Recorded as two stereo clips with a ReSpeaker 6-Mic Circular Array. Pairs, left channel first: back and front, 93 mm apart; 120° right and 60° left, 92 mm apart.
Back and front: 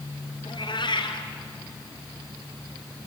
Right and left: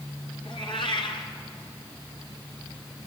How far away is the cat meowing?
About 3 m.